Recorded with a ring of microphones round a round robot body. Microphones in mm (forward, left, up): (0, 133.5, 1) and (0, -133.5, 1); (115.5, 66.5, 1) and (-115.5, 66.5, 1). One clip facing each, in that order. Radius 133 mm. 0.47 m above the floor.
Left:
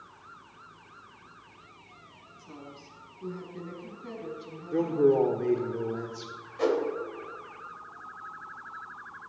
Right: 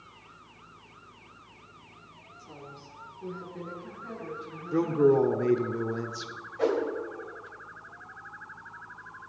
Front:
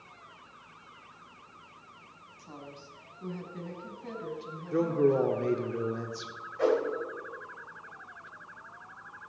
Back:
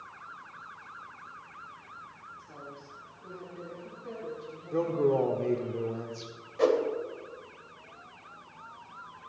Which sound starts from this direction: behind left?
A whoosh, at 6.6 s.